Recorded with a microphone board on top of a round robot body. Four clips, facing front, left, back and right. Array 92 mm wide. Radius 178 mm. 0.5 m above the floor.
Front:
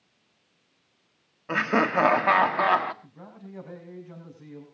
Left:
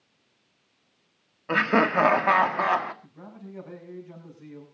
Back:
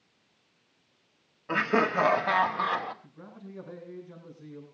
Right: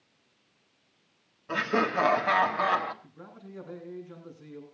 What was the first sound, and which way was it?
Laughter, 75° left.